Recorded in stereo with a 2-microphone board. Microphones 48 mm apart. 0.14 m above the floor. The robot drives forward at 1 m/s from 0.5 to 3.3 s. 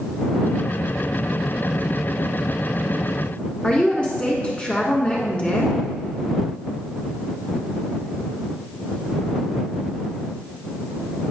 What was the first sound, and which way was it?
A woman speaking, 25° left (ahead or behind).